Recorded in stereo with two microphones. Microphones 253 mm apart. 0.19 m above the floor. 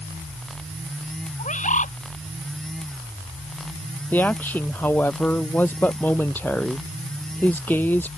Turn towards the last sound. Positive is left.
turn(degrees=5)  # may be behind; listen again after turning